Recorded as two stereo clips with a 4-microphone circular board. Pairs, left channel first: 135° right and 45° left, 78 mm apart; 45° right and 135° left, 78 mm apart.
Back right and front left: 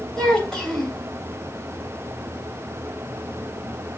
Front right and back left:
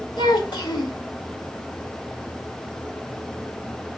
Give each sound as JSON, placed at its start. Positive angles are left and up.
{"t": 0.2, "sound": "a child speaking", "azimuth_deg": -55, "distance_m": 2.5}